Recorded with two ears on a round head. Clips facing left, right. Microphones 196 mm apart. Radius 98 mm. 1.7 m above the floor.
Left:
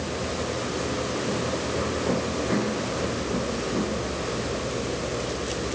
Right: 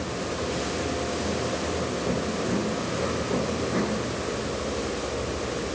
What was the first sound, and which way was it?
Only background noise.